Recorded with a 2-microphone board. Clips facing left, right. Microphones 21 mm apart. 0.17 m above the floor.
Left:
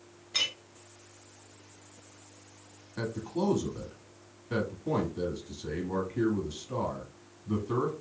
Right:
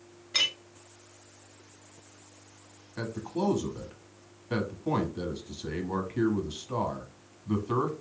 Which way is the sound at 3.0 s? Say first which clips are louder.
Even; 25° right (ahead or behind).